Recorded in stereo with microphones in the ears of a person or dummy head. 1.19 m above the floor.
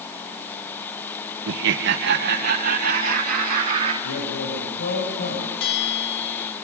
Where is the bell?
75° left (ahead or behind), 4 m.